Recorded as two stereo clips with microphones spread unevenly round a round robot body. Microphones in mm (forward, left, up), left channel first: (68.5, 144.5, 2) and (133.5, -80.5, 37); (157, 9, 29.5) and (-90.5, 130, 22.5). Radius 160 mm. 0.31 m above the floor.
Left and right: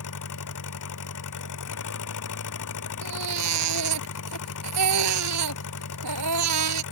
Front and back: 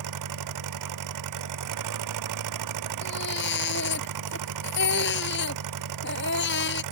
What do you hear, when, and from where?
0.0 s an engine running: 150° left
3.0 s a baby crying: 85° right